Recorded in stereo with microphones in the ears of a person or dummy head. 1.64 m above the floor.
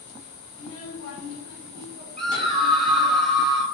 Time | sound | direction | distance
0.5 | a child speaking | 25° left (ahead or behind) | 0.7 m
2.2 | a scream | centre (ahead or behind) | 1.3 m